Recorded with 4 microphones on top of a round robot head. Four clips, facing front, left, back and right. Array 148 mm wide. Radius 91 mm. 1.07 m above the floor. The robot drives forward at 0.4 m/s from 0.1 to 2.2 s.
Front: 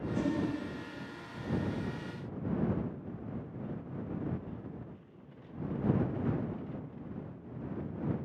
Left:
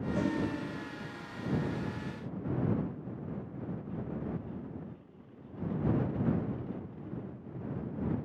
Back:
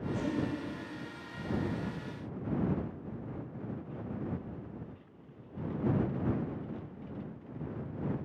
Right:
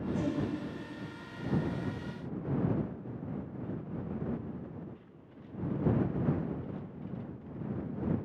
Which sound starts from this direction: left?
A whoosh, at 0.1 s.